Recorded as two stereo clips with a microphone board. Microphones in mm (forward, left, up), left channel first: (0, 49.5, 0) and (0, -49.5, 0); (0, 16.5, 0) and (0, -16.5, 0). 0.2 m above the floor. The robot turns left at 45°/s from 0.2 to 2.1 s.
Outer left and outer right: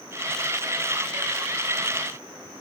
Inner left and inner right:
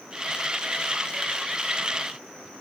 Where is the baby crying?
No baby crying in this recording.